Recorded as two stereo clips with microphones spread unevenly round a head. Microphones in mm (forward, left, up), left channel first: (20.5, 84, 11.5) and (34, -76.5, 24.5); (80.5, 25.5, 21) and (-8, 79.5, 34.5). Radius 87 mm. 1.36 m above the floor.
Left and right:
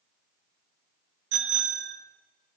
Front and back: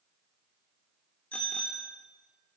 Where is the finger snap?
No finger snap in this recording.